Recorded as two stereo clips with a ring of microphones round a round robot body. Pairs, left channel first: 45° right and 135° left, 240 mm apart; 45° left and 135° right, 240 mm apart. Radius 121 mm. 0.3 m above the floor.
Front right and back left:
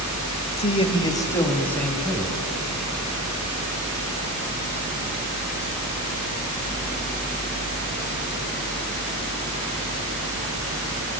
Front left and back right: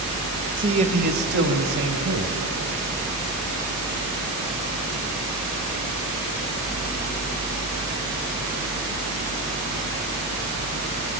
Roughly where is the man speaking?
Right.